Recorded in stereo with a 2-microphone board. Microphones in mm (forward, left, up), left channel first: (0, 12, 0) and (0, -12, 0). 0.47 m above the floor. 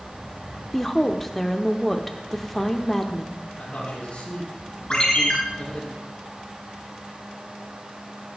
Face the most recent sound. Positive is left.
turn(degrees=40)  # may be behind; listen again after turning